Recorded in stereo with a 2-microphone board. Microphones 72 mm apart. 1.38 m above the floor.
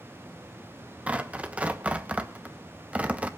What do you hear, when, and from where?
1.1 s tearing paper: 20° right (ahead or behind), 1.0 m